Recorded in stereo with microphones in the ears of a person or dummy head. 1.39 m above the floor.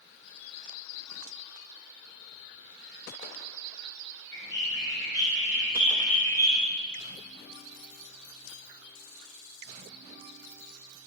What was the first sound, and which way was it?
A bird, 15° left (ahead or behind).